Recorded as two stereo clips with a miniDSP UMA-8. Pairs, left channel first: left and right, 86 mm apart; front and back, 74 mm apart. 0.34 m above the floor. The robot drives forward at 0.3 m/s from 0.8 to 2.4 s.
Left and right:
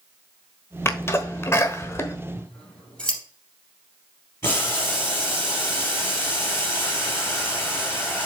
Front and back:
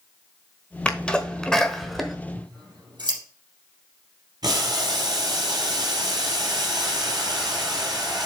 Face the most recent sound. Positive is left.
turn(degrees=150)